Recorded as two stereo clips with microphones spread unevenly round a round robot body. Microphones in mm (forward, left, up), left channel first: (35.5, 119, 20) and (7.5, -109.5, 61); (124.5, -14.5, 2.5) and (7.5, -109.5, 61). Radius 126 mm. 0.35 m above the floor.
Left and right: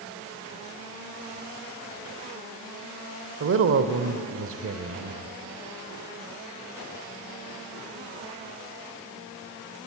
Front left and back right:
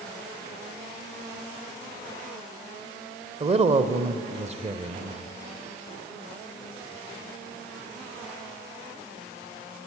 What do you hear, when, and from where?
3.4 s a woman speaking: 85° right, 1.3 m